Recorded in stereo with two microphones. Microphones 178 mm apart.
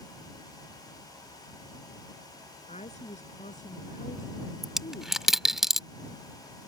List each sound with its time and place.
2.7 s a woman speaking: 40° left (ahead or behind); by 5.6 s 55° left (ahead or behind)
4.6 s a dropped coin: centre (ahead or behind)